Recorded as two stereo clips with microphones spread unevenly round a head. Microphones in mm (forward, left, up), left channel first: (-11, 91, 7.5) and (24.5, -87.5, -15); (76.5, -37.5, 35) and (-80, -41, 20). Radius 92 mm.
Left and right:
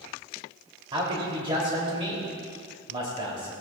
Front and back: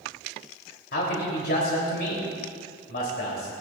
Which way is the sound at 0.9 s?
15° right.